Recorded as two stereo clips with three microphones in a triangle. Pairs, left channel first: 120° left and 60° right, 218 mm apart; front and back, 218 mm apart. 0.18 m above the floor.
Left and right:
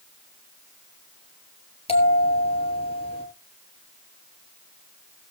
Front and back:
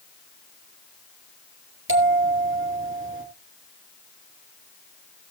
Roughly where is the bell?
Behind.